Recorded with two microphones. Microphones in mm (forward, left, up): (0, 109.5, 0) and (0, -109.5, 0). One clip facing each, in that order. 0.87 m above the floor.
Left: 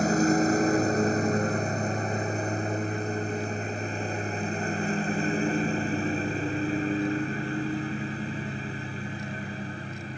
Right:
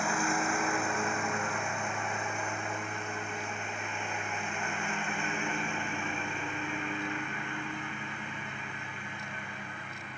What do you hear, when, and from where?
0.0 s a lawn mower: 40° left (ahead or behind); by 10.2 s 35° left (ahead or behind)